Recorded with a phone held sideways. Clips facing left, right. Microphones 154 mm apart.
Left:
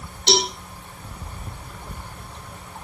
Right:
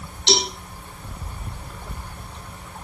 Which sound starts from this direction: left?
A cowbell, at 0.3 s.